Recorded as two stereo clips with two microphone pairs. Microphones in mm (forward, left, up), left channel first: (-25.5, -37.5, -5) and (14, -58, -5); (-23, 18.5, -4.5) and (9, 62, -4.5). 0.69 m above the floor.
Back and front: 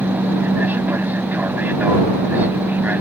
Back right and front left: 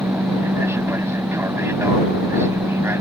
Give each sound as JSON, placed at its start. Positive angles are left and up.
{"t": 0.0, "sound": "an aircraft", "azimuth_deg": 20}